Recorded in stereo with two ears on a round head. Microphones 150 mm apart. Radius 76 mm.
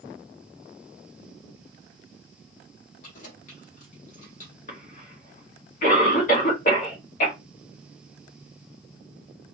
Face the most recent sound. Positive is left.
turn(degrees=45)  # may be behind; listen again after turning